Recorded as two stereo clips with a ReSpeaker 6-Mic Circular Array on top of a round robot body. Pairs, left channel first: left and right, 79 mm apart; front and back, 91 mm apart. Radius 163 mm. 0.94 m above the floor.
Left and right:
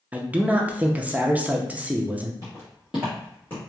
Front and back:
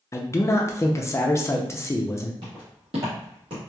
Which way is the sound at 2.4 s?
145° right.